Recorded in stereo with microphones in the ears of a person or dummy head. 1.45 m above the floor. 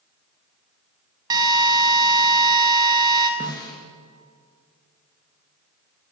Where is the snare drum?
15° left (ahead or behind), 5.5 m.